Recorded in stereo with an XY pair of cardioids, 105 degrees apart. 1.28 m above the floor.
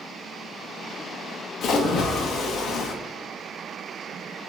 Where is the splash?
60° left, 0.8 m.